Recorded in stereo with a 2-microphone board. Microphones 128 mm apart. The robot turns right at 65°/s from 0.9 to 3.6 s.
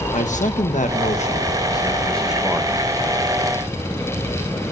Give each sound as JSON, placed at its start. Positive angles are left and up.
{"t": 0.1, "sound": "a man speaking", "azimuth_deg": 95, "distance_m": 1.4}